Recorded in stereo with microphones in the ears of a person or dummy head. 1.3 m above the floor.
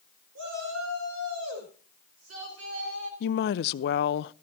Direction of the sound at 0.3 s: 65° right (ahead or behind).